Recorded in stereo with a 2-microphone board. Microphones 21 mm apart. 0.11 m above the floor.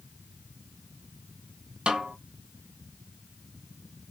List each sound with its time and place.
1.9 s a snare drum: 45° right (ahead or behind), 0.9 m